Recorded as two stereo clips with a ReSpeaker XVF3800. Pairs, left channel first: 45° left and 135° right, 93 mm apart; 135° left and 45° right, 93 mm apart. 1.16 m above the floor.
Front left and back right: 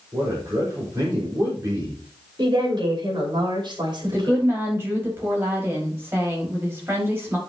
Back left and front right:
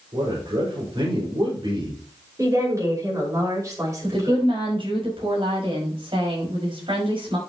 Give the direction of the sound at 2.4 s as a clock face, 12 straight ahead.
3 o'clock.